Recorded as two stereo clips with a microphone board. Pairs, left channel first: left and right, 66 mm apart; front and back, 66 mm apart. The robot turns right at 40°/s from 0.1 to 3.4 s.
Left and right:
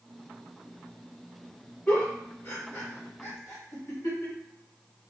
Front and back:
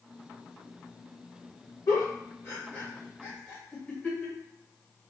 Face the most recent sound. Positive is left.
turn(degrees=75)